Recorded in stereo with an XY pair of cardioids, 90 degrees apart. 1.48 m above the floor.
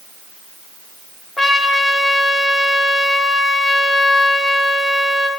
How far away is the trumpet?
About 1.4 m.